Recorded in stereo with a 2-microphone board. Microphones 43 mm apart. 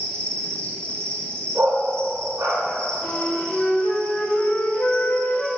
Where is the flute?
65° left (ahead or behind), 1.6 m.